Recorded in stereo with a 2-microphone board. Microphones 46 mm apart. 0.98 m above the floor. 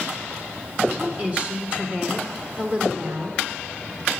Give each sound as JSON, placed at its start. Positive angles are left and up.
{"t": 1.0, "sound": "a woman speaking", "side_deg": -25, "distance_m": 1.2}